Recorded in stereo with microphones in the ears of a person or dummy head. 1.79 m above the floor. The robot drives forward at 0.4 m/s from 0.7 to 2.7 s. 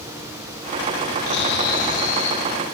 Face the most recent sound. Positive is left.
turn(degrees=30)  # may be behind; listen again after turning